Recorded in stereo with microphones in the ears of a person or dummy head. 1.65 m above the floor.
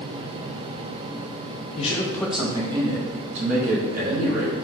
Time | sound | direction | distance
1.8 | a man speaking | 40° left (ahead or behind) | 0.6 m